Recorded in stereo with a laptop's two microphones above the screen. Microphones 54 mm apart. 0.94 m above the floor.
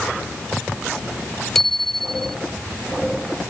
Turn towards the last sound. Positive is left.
turn(degrees=5)  # may be behind; listen again after turning